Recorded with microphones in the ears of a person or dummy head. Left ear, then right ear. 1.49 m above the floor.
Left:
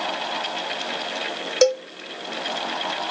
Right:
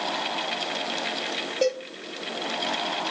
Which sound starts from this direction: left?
A cowbell, at 1.6 s.